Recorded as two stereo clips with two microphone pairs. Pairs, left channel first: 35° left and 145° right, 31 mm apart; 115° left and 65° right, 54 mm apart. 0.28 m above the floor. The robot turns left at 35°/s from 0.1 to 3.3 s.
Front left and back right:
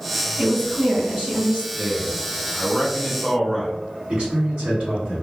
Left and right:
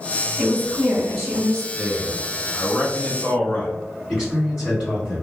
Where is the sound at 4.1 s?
135° right, 1.5 m.